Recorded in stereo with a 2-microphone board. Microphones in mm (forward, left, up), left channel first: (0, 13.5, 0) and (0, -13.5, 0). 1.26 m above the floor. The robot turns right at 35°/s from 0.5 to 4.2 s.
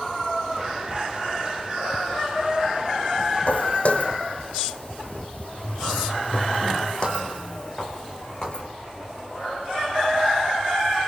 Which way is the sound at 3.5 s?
55° left (ahead or behind).